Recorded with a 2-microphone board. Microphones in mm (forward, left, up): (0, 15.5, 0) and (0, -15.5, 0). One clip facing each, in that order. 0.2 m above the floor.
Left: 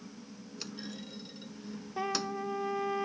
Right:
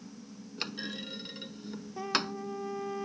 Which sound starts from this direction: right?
A clunk, at 0.6 s.